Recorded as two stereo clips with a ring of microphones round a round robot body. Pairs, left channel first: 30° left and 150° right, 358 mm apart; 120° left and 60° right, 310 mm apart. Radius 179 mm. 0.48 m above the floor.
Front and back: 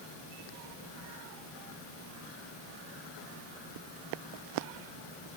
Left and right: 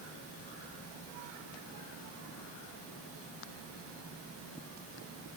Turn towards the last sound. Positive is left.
No sound to turn to.